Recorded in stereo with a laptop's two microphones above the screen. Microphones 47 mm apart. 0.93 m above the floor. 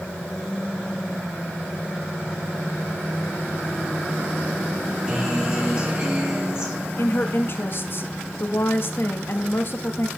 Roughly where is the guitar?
Right.